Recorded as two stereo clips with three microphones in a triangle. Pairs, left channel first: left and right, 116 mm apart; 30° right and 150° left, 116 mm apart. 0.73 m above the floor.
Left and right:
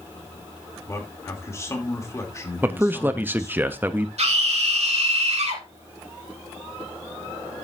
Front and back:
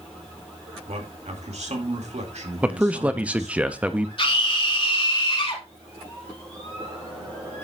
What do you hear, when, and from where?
0.9 s a man speaking: 150° left, 2.5 m
2.6 s a man speaking: 140° right, 0.6 m
4.2 s a scream: 70° right, 3 m